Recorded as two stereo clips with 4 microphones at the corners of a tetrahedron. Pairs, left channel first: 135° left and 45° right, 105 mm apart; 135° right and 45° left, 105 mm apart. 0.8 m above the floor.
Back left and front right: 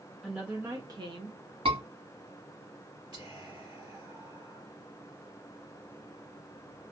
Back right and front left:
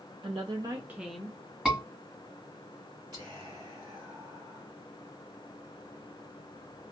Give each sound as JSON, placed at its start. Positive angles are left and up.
{"t": 0.2, "sound": "a woman speaking", "azimuth_deg": 40, "distance_m": 0.6}
{"t": 1.6, "sound": "a scream", "azimuth_deg": -40, "distance_m": 1.8}
{"t": 3.1, "sound": "whispering", "azimuth_deg": -5, "distance_m": 1.9}